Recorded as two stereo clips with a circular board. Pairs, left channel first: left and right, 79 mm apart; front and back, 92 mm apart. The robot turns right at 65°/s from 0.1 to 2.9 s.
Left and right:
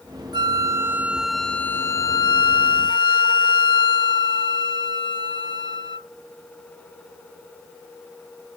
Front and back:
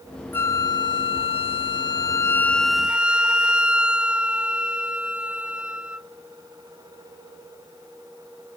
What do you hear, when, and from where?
0.3 s a flute: 65° right; by 6.1 s 100° left